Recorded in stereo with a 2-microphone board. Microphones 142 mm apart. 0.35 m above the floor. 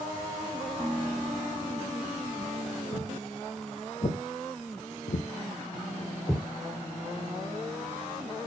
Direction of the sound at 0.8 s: 15° left (ahead or behind).